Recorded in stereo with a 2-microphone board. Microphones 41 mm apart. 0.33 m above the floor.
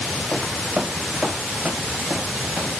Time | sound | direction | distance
0.3 | footsteps | 20° left (ahead or behind) | 0.6 m